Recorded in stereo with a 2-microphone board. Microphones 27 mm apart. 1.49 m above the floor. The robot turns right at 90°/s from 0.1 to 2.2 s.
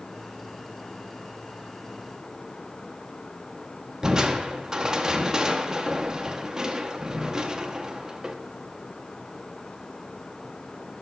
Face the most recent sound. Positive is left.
turn(degrees=-25)  # may be behind; listen again after turning